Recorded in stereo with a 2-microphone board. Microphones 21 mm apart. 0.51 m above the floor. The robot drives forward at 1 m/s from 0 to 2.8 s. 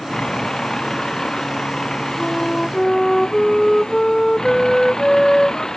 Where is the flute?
20° left (ahead or behind).